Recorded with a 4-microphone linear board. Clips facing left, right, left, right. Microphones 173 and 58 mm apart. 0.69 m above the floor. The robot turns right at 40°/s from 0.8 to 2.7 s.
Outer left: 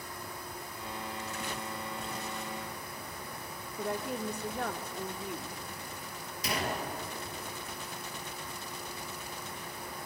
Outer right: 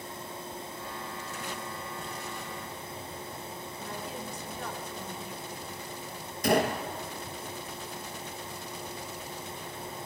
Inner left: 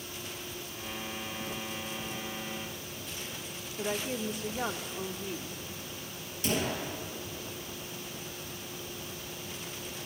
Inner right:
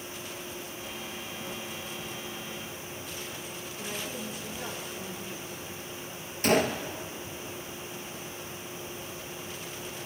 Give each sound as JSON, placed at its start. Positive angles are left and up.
{"t": 3.8, "sound": "a woman speaking", "side_deg": 60, "distance_m": 1.5}
{"t": 6.4, "sound": "a gunshot", "side_deg": -50, "distance_m": 2.5}